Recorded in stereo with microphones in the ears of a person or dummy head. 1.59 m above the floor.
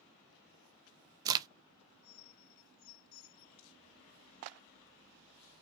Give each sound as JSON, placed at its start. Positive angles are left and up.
{"t": 1.2, "sound": "a crack", "side_deg": -25, "distance_m": 0.5}